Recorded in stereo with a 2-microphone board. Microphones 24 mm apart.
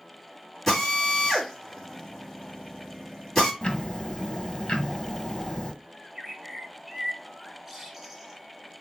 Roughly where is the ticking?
Left.